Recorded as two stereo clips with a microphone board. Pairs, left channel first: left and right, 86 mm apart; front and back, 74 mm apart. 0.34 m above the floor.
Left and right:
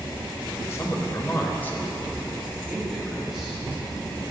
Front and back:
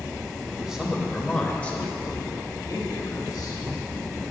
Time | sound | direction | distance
0.6 | a man speaking | 115° left | 1.0 m